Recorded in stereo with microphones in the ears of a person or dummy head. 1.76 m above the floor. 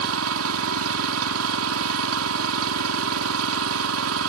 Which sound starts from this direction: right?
An engine running, at 0.0 s.